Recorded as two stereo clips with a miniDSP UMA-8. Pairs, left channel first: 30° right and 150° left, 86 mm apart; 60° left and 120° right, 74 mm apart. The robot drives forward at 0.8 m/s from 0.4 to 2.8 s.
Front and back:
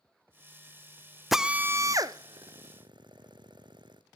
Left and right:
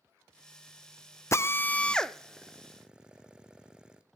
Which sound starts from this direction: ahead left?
A drill, at 1.3 s.